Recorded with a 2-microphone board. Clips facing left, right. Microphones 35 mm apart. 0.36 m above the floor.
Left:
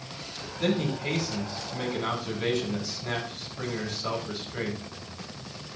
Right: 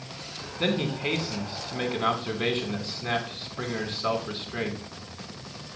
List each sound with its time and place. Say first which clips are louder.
0.6 s a man speaking: right 1 dB; 45° right (ahead or behind), 4 m